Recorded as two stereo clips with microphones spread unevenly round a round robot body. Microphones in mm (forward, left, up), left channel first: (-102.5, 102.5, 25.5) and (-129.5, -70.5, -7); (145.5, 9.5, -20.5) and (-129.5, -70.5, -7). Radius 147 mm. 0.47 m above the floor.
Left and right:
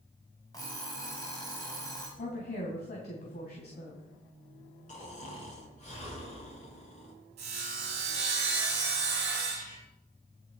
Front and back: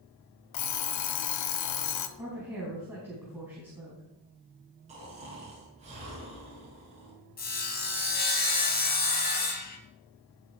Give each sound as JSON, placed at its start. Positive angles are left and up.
{"t": 0.5, "sound": "an alarm clock", "azimuth_deg": 0, "distance_m": 1.2}
{"t": 2.2, "sound": "a woman speaking", "azimuth_deg": 115, "distance_m": 3.5}
{"t": 4.9, "sound": "snoring", "azimuth_deg": 130, "distance_m": 6.5}
{"t": 7.4, "sound": "sawing", "azimuth_deg": -40, "distance_m": 4.0}